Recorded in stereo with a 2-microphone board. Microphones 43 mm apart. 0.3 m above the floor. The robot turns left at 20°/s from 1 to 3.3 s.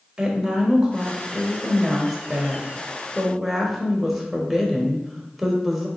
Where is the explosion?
I don't hear an explosion.